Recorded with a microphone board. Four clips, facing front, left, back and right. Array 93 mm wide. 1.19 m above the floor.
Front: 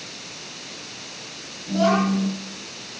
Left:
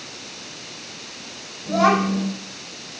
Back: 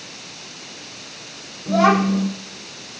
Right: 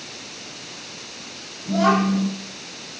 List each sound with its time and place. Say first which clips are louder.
1.7 s a child speaking: left 1 dB, back 4 dB; 170° left, 3 m